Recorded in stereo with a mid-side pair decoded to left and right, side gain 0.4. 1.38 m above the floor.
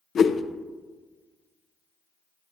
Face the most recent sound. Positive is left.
turn(degrees=55)